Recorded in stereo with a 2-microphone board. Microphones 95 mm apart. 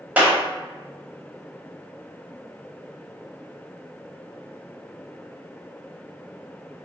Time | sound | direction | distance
0.2 | a clap | 15° right (ahead or behind) | 0.8 m